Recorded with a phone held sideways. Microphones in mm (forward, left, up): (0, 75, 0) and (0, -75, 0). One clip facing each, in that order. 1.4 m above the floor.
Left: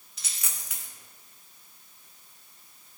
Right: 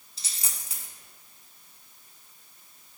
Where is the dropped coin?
35° right (ahead or behind), 1.6 m.